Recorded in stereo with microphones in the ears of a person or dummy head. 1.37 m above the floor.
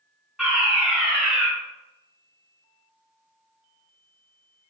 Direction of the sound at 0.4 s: 5° right (ahead or behind).